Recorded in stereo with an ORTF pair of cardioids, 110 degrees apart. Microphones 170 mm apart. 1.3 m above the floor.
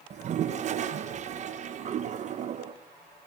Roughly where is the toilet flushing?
Ahead right.